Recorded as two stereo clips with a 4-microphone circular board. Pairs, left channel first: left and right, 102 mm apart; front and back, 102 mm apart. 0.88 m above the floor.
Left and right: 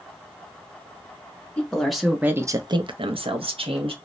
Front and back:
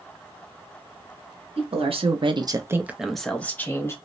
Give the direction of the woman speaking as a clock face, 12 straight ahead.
6 o'clock.